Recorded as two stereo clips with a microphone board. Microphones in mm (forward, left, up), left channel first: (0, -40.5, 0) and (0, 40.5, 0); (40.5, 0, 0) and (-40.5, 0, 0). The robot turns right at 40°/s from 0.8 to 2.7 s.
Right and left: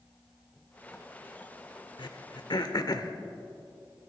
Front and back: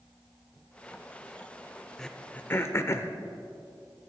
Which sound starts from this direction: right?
Throat clearing, at 2.0 s.